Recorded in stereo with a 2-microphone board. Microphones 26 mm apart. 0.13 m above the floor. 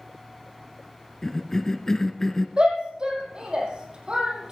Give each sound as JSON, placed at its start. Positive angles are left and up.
{"t": 1.2, "sound": "a cough", "side_deg": 20, "distance_m": 1.2}
{"t": 2.6, "sound": "a shout", "side_deg": -40, "distance_m": 5.0}